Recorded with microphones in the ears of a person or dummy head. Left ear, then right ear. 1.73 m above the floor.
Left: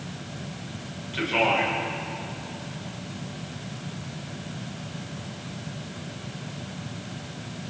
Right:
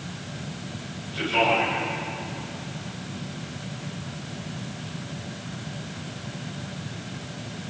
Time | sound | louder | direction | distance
1.1 | a man speaking | right 1 dB | 85° left | 8.5 m